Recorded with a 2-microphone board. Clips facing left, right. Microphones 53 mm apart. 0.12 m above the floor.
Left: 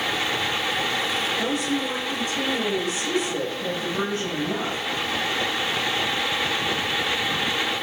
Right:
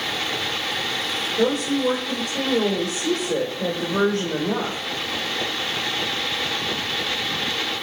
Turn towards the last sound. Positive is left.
turn(degrees=-80)